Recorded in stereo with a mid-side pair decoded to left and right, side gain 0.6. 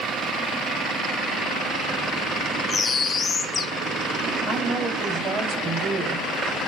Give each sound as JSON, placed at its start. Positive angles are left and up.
{"t": 2.7, "sound": "a bird", "azimuth_deg": 25, "distance_m": 1.6}
{"t": 4.5, "sound": "a woman speaking", "azimuth_deg": -50, "distance_m": 3.0}